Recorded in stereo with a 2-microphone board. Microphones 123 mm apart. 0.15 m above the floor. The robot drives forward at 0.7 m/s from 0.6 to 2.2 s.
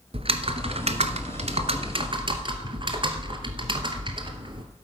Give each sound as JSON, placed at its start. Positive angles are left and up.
{"t": 0.1, "sound": "typing on a keyboard", "side_deg": -50, "distance_m": 0.9}